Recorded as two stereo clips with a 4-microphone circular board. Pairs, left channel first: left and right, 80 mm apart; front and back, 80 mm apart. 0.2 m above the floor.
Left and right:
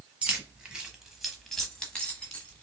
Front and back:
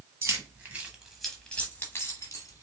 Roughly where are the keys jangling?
Behind right.